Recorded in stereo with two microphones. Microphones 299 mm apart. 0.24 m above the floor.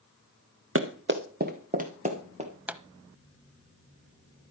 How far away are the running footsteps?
About 1.4 m.